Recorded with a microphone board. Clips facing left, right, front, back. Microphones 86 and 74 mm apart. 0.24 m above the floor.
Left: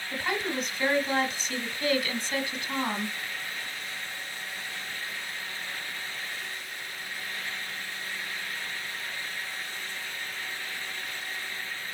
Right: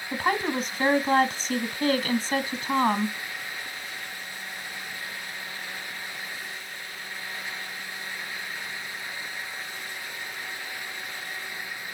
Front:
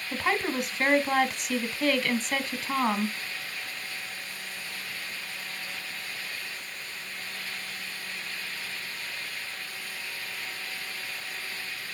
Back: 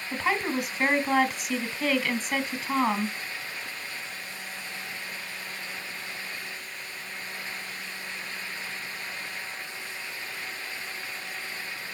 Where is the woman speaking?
85° right, 1.2 m.